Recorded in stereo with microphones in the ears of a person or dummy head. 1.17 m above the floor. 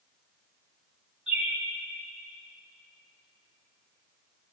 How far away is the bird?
About 2.5 m.